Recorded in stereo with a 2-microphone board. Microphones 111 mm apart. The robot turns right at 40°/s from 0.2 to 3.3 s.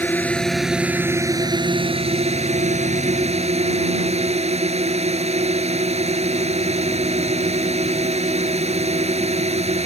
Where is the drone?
165° left; by 9.9 s 70° right.